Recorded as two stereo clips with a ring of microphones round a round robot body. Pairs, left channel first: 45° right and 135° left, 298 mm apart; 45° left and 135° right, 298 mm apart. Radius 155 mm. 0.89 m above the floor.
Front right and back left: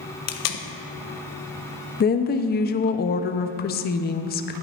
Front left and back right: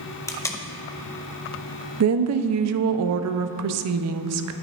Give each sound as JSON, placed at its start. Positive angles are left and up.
{"t": 0.3, "sound": "tape being pulled", "azimuth_deg": -35, "distance_m": 0.8}
{"t": 2.0, "sound": "a woman speaking", "azimuth_deg": -105, "distance_m": 0.6}